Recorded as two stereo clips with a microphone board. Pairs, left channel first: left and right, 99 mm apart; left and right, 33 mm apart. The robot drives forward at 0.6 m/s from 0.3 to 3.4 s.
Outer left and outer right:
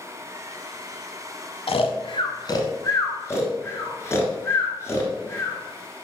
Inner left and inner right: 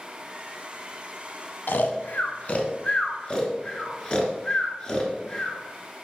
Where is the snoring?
75° left (ahead or behind), 0.6 m; by 5.6 s 25° left (ahead or behind), 1.3 m.